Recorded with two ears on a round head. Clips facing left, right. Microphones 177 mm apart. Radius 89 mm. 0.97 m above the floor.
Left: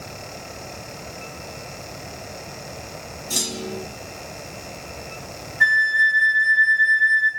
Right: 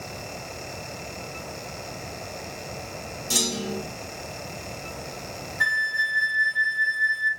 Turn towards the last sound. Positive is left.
turn(degrees=-50)  # may be behind; listen again after turning